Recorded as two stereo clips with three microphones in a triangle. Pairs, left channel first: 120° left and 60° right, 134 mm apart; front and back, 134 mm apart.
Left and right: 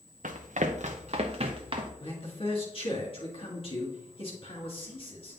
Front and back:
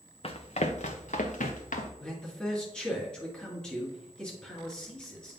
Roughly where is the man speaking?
Left.